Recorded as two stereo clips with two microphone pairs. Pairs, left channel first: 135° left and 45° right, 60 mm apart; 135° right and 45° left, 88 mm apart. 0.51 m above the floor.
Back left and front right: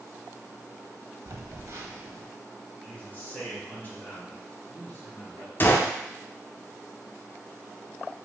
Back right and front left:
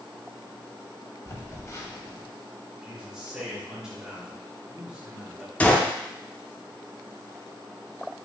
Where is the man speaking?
120° left, 1.5 m.